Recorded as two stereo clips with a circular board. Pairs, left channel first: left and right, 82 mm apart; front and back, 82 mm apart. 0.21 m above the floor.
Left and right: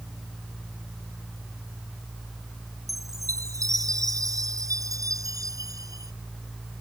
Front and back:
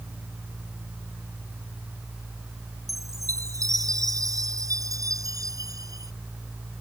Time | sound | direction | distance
2.9 | a chime | 135° right | ?